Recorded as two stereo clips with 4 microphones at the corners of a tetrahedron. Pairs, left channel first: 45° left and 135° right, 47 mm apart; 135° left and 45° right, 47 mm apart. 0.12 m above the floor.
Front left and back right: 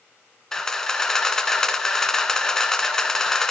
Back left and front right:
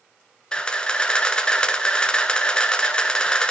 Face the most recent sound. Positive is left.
turn(degrees=105)